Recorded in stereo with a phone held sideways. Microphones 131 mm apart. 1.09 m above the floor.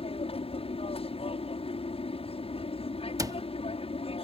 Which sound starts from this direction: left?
An aircraft, at 0.0 s.